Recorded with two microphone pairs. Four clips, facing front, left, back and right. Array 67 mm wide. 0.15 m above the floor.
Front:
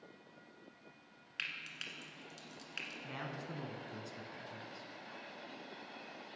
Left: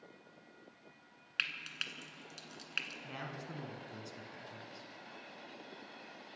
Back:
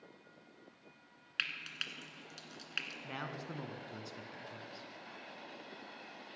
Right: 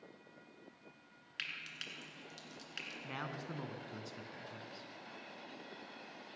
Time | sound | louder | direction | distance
1.4 | frying | left 6 dB, back 4 dB | 125° left | 1.5 m
3.0 | a man speaking | right 1 dB, back 1 dB | 130° right | 1.5 m